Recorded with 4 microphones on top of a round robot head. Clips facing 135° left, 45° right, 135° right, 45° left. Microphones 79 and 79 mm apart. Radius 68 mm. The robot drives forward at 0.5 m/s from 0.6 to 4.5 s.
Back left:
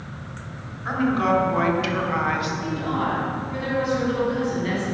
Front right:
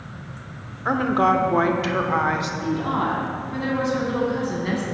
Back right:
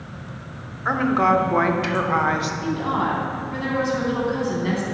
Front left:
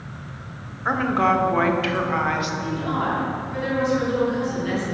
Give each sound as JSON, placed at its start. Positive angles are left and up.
{"t": 0.8, "sound": "a woman speaking", "azimuth_deg": -50, "distance_m": 1.3}
{"t": 2.6, "sound": "a woman speaking", "azimuth_deg": -95, "distance_m": 3.5}